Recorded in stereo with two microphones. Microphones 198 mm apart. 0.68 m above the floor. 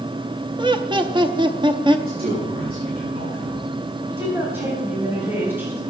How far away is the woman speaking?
About 3.5 m.